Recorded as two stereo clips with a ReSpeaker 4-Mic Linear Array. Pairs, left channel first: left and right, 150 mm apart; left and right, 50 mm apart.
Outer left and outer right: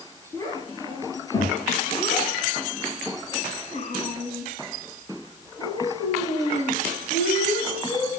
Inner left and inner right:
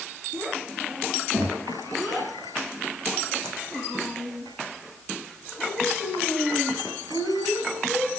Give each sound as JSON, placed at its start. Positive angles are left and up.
{"t": 0.3, "sound": "a child speaking", "side_deg": 25, "distance_m": 8.0}